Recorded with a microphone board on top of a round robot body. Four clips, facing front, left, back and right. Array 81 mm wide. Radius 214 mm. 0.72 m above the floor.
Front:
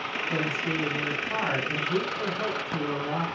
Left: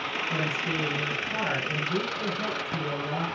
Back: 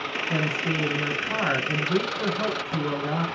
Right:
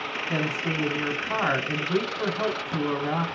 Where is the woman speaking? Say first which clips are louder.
Right 4 dB, back 2 dB; 100° right, 4.5 m.